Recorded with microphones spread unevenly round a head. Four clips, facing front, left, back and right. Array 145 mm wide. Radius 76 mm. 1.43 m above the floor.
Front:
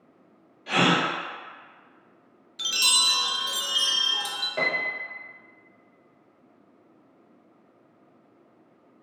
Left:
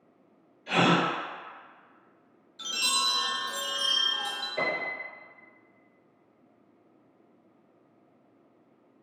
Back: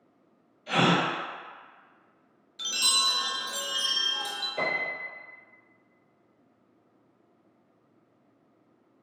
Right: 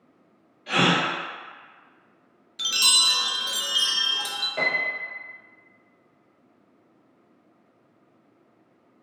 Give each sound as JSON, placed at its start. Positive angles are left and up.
{"t": 0.7, "sound": "a gasp", "azimuth_deg": -20, "distance_m": 1.1}
{"t": 2.6, "sound": "a chime", "azimuth_deg": -60, "distance_m": 0.6}
{"t": 4.6, "sound": "a piano", "azimuth_deg": -25, "distance_m": 0.7}